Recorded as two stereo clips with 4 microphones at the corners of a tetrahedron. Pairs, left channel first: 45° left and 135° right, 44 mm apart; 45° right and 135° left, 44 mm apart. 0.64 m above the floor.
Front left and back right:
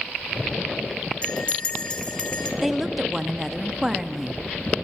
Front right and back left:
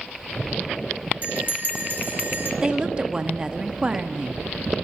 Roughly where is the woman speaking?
Behind left.